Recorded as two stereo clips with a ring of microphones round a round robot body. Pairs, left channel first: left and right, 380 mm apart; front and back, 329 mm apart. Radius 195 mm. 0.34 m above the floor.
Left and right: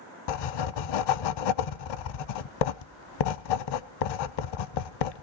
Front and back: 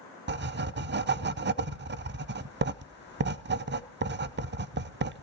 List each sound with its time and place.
0.3 s writing: 120° left, 0.6 m